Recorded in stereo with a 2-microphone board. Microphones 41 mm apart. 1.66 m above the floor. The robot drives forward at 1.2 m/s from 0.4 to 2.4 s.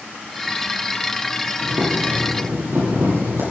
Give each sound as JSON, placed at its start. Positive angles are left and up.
{"t": 1.6, "sound": "boiling", "side_deg": -80, "distance_m": 10.0}